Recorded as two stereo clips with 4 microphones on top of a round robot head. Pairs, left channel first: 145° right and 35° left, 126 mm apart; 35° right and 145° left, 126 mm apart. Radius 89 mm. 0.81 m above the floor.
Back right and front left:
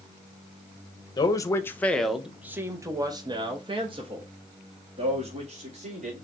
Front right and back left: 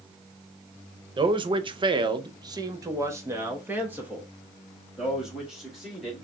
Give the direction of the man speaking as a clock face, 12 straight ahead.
6 o'clock.